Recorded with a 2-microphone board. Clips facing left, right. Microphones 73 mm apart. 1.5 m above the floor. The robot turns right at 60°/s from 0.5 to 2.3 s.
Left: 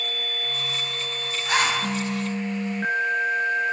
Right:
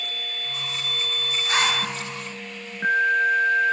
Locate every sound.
1.4 s a zipper: 75° left (ahead or behind), 3.5 m; by 1.8 s 80° left, 3.5 m